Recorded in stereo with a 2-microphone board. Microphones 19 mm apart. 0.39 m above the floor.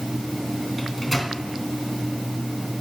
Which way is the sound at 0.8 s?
5° right (ahead or behind).